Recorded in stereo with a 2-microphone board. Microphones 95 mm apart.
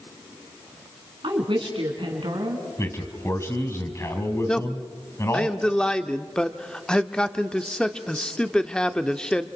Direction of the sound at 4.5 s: 10° left (ahead or behind).